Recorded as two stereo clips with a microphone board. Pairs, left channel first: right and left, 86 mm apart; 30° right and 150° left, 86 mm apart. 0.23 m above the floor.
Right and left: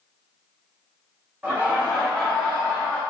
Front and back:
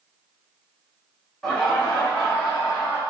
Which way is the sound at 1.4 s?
50° left.